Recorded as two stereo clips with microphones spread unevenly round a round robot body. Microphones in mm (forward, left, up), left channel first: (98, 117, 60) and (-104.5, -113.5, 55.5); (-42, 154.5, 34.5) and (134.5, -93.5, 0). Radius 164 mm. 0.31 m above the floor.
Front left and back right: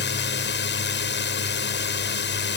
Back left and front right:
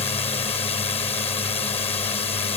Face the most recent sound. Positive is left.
turn(degrees=60)